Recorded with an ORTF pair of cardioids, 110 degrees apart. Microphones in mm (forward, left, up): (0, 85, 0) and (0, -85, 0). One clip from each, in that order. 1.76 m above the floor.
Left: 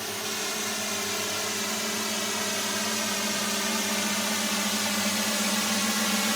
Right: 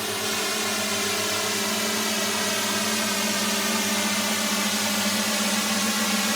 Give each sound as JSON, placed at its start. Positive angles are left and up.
{"t": 0.0, "sound": "a drone", "azimuth_deg": -35}